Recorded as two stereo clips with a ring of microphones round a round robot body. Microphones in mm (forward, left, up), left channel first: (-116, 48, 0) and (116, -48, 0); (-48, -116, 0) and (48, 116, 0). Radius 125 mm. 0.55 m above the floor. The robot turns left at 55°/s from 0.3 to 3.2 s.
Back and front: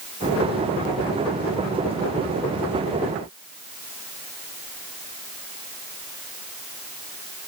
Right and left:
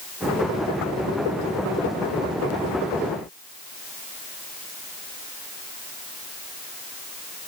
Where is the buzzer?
No buzzer in this recording.